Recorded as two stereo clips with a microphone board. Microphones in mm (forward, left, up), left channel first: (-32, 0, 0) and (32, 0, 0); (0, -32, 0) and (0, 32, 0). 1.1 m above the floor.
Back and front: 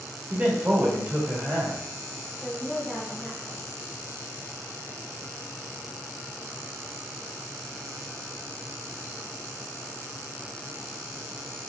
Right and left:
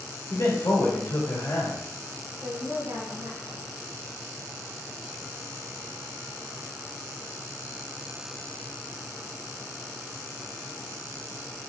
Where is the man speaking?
60° right, 2 m.